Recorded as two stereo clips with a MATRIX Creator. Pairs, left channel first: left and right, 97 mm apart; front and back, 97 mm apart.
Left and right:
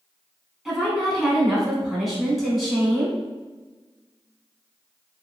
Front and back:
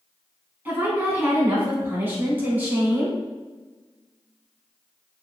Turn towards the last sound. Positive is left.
turn(degrees=180)